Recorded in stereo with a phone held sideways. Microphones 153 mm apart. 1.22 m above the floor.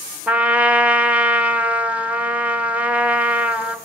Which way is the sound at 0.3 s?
10° right (ahead or behind).